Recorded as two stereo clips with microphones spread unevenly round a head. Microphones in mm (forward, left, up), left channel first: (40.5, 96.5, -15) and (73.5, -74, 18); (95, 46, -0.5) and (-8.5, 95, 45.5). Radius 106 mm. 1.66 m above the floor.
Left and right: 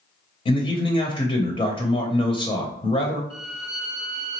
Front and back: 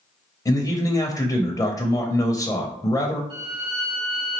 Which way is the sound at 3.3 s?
130° left.